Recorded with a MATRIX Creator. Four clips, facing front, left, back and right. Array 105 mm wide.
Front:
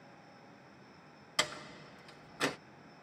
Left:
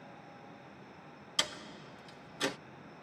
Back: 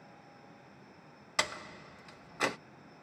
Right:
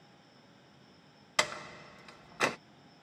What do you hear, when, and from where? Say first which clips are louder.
1.4 s a door slam: right 7 dB, back 2 dB; 110° right, 1.2 m